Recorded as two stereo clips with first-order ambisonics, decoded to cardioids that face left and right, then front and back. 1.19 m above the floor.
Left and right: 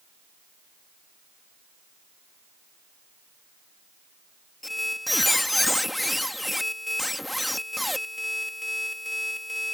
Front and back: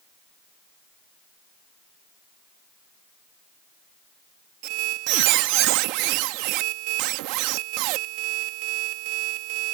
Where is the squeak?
175° left.